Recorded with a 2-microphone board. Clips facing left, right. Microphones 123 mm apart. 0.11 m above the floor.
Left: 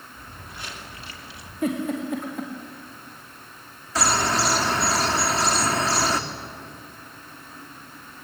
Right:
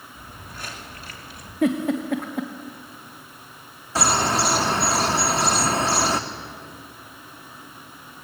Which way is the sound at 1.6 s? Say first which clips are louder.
Right 4 dB; 60° right (ahead or behind).